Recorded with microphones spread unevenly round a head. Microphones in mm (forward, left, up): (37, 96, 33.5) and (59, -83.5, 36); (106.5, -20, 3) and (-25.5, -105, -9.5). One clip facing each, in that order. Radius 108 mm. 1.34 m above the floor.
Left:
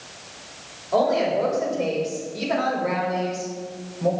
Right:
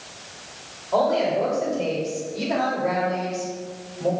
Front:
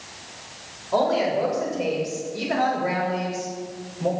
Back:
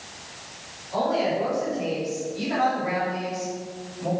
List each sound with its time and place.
0.9 s a woman speaking: 20° left, 6.5 m; by 4.1 s 5° right, 6 m